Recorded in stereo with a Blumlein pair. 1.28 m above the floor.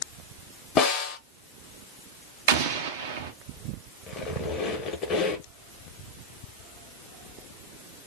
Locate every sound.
0.8 s a snare drum: 30° left, 0.9 m
2.5 s an explosion: 55° right, 0.5 m
4.1 s a squeak: 30° left, 0.9 m